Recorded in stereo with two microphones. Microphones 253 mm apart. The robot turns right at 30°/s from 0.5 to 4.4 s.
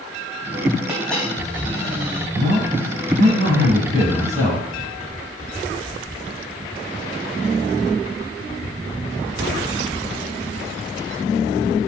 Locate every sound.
0.9 s a dropped coin: 5° right (ahead or behind), 3.5 m; by 2.2 s 35° left (ahead or behind), 3.5 m
2.3 s a man speaking: 90° right, 3 m; by 4.7 s 30° right, 3 m